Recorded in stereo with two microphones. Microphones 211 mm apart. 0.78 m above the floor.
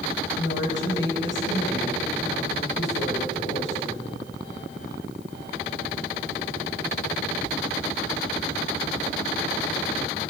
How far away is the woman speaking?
About 4.5 m.